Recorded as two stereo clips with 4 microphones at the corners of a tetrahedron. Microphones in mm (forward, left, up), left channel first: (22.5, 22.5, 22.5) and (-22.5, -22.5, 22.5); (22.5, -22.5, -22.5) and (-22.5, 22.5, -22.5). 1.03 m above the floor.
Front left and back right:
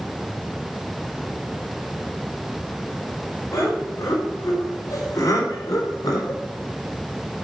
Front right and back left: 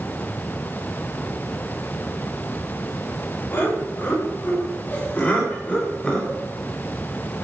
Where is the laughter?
10° left, 3.5 m; by 6.4 s 35° left, 3 m.